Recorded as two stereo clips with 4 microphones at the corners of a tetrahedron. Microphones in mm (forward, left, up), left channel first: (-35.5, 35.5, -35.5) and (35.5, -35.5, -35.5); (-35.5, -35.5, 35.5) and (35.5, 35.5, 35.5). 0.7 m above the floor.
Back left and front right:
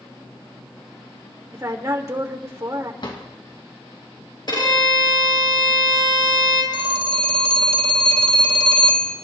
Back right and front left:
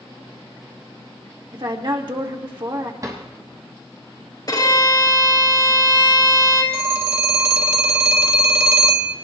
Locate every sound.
1.5 s a woman speaking: 10° left, 2 m
3.0 s a drawer: 100° left, 2.5 m
4.5 s a violin: 175° left, 4.5 m
6.7 s a phone ringing: 15° right, 1.9 m